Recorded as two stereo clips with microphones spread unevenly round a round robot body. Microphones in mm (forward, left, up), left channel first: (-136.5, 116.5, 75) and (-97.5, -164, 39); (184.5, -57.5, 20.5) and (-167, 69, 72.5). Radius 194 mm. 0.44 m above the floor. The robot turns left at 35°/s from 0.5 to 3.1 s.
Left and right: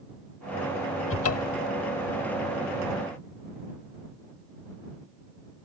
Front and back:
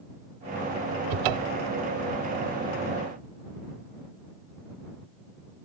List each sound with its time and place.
1.1 s a cupboard door: 145° left; by 1.7 s 125° left